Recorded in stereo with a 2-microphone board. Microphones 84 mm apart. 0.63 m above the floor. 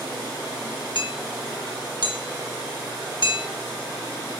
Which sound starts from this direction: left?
Hammering, at 0.9 s.